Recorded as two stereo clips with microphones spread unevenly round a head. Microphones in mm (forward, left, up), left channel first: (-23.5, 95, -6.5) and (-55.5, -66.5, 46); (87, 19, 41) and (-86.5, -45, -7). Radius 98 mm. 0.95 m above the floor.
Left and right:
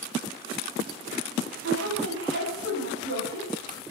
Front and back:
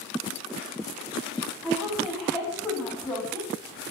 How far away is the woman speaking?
About 6.5 m.